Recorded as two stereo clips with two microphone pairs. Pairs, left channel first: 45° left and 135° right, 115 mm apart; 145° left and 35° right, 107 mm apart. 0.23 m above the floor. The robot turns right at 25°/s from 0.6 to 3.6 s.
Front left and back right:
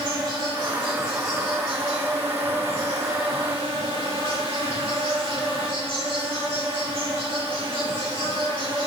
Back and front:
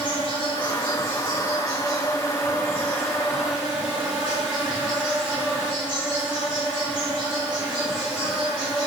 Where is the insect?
175° left, 4.5 m; by 8.9 s 110° right, 4.5 m.